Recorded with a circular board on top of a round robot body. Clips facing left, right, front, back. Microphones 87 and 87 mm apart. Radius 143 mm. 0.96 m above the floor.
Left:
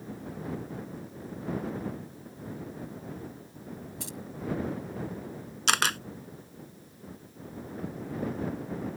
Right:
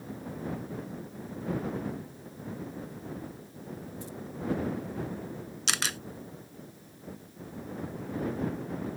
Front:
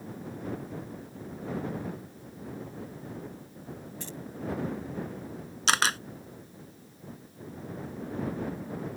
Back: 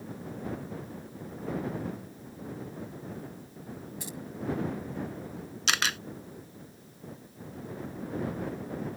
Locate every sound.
4.0 s keys jangling: 100° left
5.7 s a camera shutter: 55° left